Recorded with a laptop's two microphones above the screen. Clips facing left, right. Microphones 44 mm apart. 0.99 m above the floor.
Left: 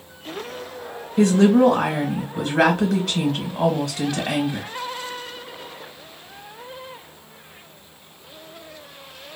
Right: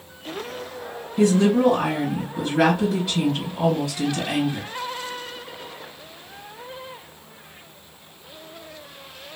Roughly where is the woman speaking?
Left.